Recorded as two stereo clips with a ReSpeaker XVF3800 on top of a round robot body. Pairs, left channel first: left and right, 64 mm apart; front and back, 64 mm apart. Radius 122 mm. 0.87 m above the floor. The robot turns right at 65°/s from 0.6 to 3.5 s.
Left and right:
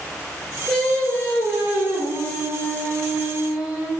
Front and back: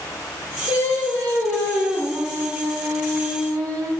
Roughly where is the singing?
Ahead.